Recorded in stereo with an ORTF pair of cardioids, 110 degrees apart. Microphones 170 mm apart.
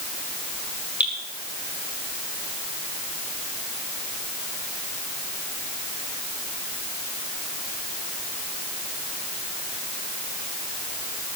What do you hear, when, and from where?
1.0 s dripping: 10° right, 6 m